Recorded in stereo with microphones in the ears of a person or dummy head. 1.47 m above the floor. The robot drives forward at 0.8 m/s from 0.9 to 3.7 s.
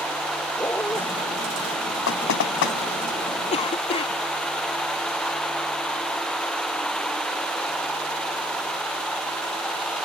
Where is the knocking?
60° left (ahead or behind).